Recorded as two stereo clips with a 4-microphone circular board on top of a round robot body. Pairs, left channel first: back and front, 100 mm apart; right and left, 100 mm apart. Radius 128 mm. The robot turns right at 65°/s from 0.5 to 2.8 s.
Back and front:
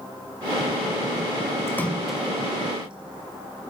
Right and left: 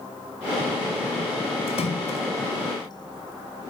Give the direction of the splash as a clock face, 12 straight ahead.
4 o'clock.